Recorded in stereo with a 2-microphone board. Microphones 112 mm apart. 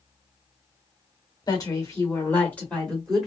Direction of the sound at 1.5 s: 35° left (ahead or behind).